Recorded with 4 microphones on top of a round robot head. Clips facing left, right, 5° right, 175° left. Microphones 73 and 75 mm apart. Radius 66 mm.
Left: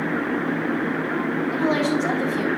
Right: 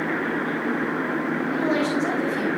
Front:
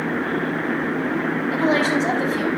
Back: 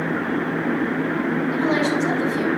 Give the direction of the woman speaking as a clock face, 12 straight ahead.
12 o'clock.